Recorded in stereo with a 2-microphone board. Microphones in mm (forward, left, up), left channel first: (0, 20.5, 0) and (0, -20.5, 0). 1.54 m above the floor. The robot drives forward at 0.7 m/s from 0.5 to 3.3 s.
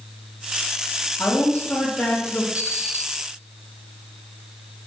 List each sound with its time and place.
1.2 s a woman speaking: 70° left (ahead or behind), 3 m; by 2.5 s 55° left (ahead or behind), 3 m
2.5 s an alarm clock: 40° right (ahead or behind), 3 m; by 3.0 s 35° right (ahead or behind), 3.5 m